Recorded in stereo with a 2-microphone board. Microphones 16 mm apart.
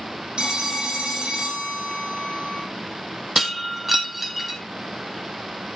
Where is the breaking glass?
10° right (ahead or behind), 1.8 m.